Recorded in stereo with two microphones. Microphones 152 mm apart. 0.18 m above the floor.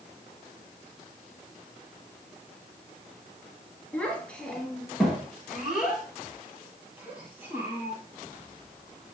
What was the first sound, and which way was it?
A child speaking, 10° left (ahead or behind).